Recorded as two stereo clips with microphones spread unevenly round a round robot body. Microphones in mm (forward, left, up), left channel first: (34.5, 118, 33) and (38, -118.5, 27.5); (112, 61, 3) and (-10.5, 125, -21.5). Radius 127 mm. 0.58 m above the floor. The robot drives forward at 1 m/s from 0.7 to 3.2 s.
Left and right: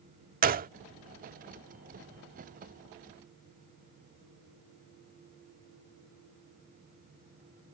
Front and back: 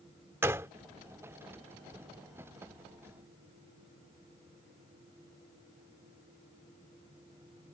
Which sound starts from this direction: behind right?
A gunshot, at 0.4 s.